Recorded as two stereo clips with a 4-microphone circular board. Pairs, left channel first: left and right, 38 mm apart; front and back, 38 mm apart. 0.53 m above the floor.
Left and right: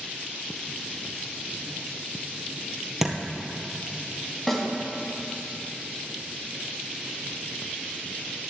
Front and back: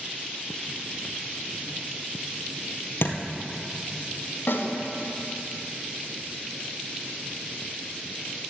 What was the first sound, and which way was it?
A thud, 10° right.